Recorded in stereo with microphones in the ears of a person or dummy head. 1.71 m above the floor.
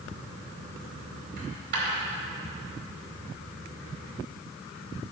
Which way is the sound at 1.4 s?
60° right (ahead or behind).